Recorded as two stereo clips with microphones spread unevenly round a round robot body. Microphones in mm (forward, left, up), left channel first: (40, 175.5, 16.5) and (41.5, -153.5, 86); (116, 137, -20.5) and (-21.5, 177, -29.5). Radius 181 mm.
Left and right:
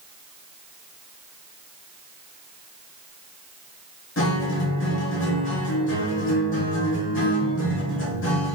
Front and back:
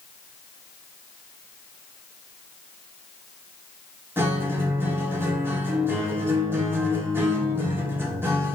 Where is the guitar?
100° left, 1.2 m.